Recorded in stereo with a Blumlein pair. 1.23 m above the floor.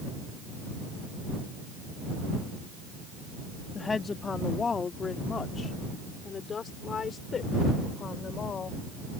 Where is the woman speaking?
15° left; by 8.8 s 20° left.